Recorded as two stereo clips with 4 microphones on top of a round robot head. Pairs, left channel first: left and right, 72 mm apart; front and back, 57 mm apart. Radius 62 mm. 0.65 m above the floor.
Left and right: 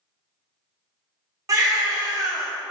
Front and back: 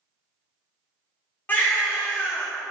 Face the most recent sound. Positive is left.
turn(degrees=-60)